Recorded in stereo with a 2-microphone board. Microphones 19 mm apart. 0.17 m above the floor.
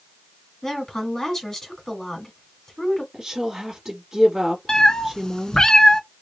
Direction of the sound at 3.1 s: 20° right (ahead or behind).